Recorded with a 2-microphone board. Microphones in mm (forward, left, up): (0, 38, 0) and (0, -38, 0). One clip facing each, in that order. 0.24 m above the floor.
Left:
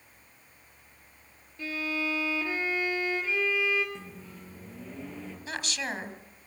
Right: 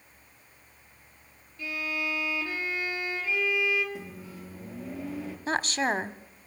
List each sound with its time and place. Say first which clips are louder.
1.6 s a violin: left 1 dB; 30° left (ahead or behind), 5.5 m
4.0 s a microwave: right 3 dB; 10° right (ahead or behind), 4 m
5.5 s a woman speaking: right 8 dB; 40° right (ahead or behind), 1.2 m